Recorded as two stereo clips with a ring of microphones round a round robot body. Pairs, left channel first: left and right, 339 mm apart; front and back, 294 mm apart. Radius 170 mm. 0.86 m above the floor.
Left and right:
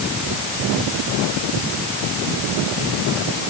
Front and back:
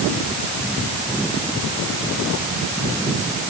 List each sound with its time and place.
Only background noise.